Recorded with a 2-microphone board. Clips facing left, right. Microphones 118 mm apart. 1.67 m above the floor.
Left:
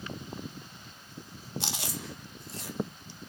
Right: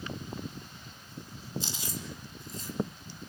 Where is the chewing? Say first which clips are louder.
Left 1 dB; 70° left (ahead or behind), 2.5 m.